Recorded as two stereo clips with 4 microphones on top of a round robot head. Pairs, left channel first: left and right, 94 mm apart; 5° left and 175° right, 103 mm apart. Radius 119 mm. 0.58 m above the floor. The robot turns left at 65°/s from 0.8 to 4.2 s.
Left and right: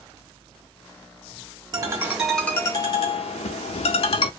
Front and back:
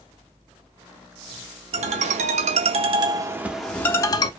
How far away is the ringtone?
About 0.5 m.